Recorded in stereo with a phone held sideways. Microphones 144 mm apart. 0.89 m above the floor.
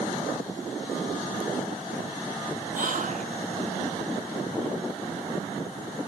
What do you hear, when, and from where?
2.7 s whispering: 60° right (ahead or behind)